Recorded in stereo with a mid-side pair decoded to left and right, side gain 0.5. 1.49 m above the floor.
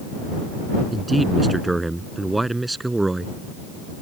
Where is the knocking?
No knocking in this recording.